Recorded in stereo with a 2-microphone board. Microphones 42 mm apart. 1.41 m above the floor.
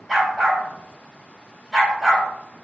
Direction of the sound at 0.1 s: 10° right (ahead or behind).